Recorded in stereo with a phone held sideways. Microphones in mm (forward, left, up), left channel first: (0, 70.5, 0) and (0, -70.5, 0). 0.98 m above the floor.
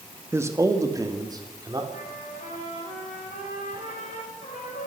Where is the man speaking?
15° right (ahead or behind), 1.4 m; by 1.8 s 30° right (ahead or behind), 3 m.